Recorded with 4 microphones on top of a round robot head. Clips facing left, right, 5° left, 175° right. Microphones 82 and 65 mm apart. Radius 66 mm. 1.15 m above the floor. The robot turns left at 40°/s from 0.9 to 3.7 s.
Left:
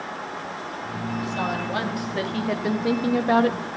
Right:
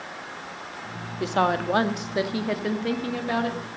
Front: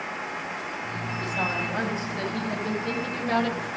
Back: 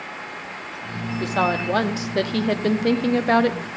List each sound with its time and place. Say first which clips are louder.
1.2 s a woman speaking: right 7 dB, back 8 dB; 125° right, 1.7 m; by 3.8 s 135° left, 1.7 m